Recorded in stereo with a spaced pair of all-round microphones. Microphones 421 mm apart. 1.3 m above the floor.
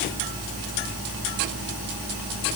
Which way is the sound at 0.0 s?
35° right (ahead or behind).